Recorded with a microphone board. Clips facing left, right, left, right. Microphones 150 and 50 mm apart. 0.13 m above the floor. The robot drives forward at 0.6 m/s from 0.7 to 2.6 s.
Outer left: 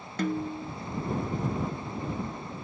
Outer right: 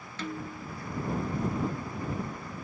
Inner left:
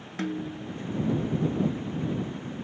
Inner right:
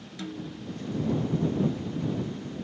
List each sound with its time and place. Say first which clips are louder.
0.2 s a snare drum: outer left 8 dB, inner left 6 dB; 50° left (ahead or behind), 0.7 m